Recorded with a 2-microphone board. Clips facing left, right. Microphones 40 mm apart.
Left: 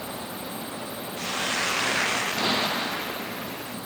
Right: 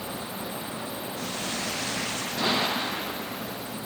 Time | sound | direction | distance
1.2 | a hiss | 80° left | ?